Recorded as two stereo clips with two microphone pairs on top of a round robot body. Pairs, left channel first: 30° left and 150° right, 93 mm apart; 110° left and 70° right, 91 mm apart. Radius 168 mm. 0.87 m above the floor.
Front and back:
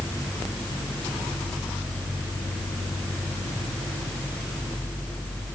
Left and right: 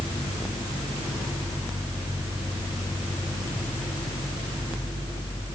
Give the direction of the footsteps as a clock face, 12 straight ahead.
I don't hear footsteps.